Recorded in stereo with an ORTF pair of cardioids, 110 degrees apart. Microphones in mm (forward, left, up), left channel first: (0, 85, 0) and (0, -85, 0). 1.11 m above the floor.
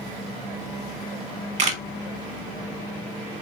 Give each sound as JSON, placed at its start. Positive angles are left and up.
{"t": 1.6, "sound": "a camera shutter", "azimuth_deg": -45, "distance_m": 0.9}